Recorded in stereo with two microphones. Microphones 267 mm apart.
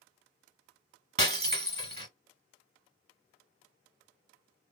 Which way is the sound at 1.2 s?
35° right (ahead or behind).